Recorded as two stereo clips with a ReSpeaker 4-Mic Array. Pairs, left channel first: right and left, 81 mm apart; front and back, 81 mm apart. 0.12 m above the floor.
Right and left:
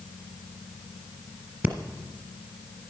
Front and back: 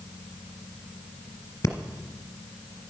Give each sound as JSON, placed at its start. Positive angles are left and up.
{"t": 1.6, "sound": "breathing", "azimuth_deg": 35, "distance_m": 1.5}